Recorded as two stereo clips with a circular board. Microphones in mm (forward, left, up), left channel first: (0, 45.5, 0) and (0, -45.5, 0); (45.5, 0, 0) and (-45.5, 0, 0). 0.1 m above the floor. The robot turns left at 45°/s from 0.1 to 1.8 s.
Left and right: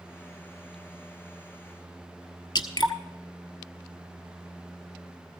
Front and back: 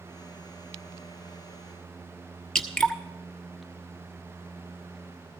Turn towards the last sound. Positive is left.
turn(degrees=80)